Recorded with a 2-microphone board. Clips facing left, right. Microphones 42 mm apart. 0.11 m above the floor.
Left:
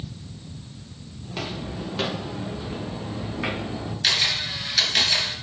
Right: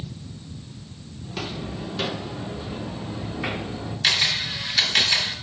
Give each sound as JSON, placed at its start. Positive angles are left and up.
{"t": 1.2, "sound": "footsteps", "side_deg": 15, "distance_m": 3.0}
{"t": 4.0, "sound": "a camera shutter", "side_deg": -5, "distance_m": 1.8}